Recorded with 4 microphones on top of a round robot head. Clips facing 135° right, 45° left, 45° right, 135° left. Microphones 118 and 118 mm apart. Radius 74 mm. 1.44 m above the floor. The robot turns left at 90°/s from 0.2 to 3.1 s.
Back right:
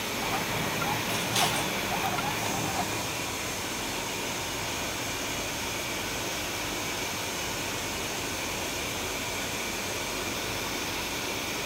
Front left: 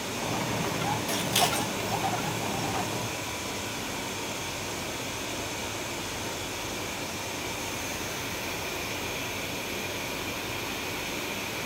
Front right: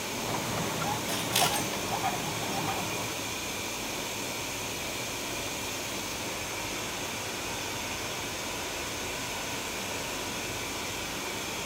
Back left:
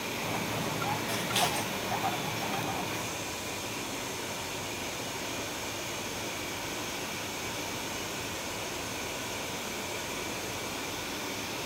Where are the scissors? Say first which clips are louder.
Front left 2 dB, front right 1 dB; 35° left, 3 m; by 1.7 s 25° right, 3 m.